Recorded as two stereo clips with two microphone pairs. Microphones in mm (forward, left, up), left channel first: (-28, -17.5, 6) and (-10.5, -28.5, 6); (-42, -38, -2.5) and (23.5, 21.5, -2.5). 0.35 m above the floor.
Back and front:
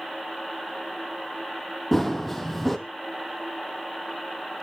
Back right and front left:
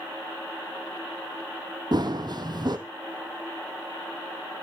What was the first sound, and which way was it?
Running footsteps, 75° left.